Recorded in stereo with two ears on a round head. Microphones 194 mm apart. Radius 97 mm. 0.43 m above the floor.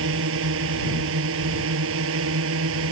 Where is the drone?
65° right (ahead or behind).